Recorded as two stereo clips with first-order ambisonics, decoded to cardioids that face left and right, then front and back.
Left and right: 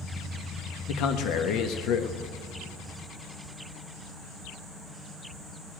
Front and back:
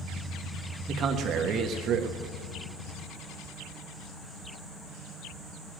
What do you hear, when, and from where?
0.9 s a man speaking: 125° left, 1.1 m